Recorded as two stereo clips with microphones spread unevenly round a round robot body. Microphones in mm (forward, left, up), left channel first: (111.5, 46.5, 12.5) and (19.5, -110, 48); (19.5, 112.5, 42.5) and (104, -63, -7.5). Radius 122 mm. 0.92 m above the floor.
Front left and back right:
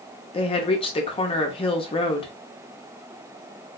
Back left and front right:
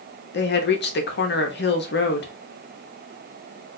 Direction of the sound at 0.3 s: 90° left.